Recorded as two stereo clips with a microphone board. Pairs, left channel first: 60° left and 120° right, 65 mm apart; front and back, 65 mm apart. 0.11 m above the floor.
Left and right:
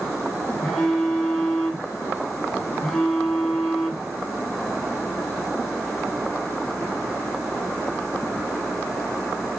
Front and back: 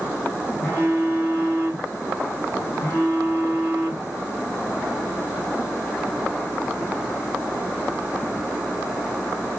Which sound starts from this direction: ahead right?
A phone buzzing, at 0.6 s.